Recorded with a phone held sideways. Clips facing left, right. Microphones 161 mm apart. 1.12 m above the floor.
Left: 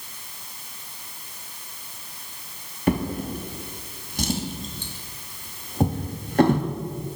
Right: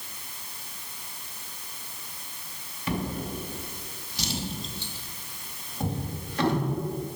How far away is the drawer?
About 0.8 m.